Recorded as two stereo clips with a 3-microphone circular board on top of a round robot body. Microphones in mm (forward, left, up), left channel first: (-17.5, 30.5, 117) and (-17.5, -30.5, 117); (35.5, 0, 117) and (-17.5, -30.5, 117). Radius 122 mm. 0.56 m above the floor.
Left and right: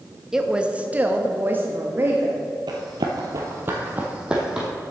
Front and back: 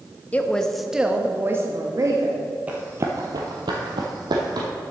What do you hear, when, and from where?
0.3 s a woman speaking: 15° right, 0.9 m; by 2.4 s 140° right, 1.3 m
2.7 s running footsteps: 80° right, 0.9 m; by 4.7 s 175° right, 1.5 m